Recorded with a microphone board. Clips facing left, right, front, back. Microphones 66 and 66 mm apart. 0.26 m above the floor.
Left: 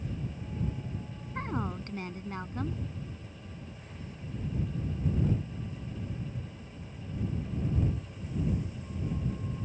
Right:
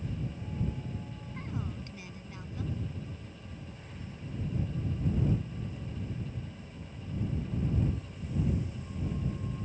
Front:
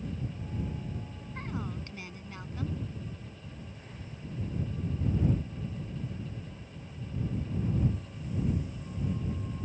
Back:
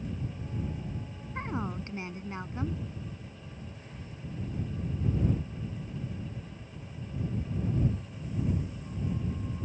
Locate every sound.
1.4 s a woman speaking: 125° left